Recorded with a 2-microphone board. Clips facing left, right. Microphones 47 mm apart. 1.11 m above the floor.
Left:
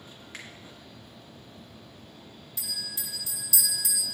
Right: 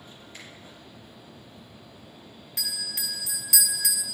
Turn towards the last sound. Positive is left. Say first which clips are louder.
# right 5 dB
turn(degrees=-70)  # may be behind; listen again after turning